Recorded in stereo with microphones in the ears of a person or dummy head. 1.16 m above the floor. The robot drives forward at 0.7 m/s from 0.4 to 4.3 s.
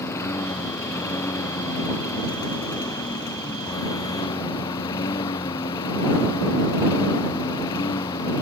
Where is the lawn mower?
25° left (ahead or behind); by 8.4 s 30° left (ahead or behind).